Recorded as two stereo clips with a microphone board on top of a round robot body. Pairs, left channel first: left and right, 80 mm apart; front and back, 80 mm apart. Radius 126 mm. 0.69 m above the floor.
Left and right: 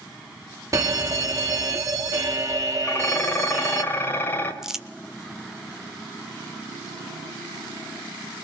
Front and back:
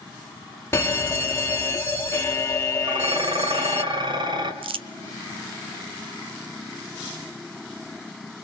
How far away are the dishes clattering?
About 2.5 m.